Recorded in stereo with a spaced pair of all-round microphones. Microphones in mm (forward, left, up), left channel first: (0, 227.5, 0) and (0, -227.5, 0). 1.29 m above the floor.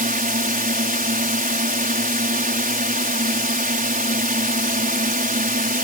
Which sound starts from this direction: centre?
A drone, at 0.0 s.